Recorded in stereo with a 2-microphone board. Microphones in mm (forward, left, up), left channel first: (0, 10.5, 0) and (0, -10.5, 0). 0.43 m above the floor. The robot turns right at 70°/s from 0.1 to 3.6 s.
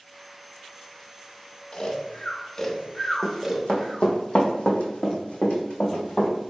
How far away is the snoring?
About 0.7 m.